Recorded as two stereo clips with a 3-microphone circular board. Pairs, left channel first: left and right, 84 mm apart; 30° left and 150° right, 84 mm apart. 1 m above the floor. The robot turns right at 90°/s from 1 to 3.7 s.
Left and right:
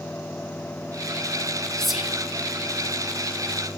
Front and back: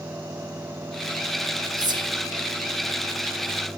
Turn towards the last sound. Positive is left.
turn(degrees=-15)